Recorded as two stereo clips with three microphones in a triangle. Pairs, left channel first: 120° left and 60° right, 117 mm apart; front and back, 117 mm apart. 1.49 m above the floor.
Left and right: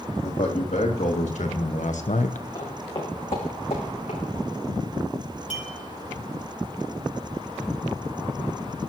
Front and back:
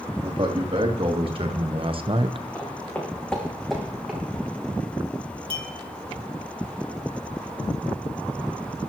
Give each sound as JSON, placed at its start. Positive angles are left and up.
{"t": 0.2, "sound": "a man speaking", "azimuth_deg": 135, "distance_m": 3.5}
{"t": 2.5, "sound": "footsteps", "azimuth_deg": 70, "distance_m": 3.5}
{"t": 5.5, "sound": "a clink", "azimuth_deg": 135, "distance_m": 3.5}